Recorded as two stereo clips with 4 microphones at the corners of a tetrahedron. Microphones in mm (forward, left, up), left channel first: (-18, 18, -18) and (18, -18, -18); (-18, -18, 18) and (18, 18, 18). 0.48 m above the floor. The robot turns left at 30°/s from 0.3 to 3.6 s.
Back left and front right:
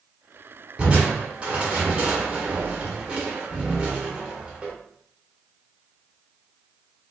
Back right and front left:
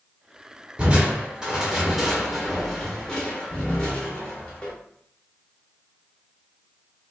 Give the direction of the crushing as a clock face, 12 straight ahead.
12 o'clock.